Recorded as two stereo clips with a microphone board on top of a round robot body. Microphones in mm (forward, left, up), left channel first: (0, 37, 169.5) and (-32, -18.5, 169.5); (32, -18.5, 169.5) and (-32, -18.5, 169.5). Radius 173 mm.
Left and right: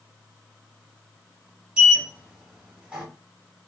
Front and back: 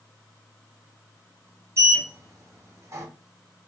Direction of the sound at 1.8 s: 170° left.